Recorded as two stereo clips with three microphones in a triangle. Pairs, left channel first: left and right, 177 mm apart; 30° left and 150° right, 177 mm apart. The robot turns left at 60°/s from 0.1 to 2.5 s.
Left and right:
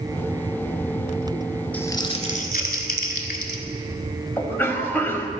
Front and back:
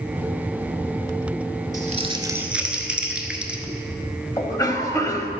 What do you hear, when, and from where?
1.7 s crumpling: 170° left, 1.0 m; by 3.6 s 125° left, 1.0 m
4.4 s a cough: 45° left, 1.0 m